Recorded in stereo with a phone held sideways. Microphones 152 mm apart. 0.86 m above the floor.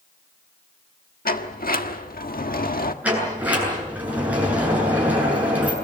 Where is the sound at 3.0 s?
10° right (ahead or behind), 8 m.